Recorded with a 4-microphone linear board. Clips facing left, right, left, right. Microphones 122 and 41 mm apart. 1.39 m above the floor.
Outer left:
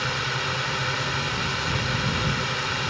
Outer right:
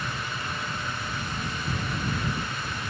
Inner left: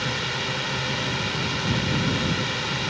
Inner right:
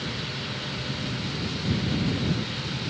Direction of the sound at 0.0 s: 75° left (ahead or behind).